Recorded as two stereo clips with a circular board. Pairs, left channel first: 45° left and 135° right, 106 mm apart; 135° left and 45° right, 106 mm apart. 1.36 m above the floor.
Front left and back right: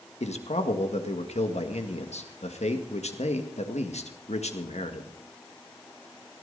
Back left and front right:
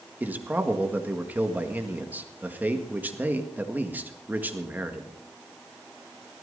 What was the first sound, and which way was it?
A man speaking, 30° left.